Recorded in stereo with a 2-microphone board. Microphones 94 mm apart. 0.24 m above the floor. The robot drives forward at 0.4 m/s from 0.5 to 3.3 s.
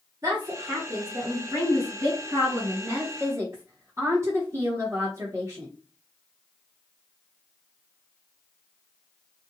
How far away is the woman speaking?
About 1.3 m.